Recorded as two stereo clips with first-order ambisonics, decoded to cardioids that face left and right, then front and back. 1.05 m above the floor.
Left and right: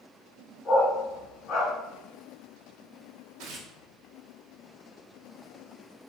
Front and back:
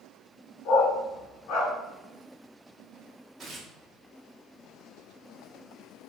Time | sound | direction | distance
0.7 | a dog barking | 15° left | 2.5 m
3.4 | tearing paper | 105° right | 1.0 m